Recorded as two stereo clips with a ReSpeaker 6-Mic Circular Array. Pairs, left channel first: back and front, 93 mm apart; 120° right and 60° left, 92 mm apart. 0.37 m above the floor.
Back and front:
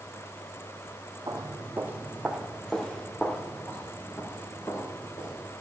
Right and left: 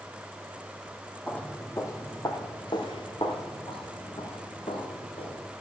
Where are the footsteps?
50° right, 1.3 m; by 5.4 s 125° right, 3 m.